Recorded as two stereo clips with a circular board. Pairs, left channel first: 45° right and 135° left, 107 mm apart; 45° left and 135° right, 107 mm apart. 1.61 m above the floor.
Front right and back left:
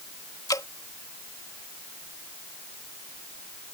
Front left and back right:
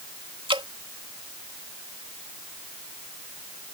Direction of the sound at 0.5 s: 100° right.